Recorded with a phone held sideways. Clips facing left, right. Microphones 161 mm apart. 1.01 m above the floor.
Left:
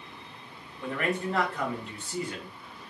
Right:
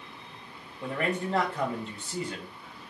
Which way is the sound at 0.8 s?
30° right (ahead or behind).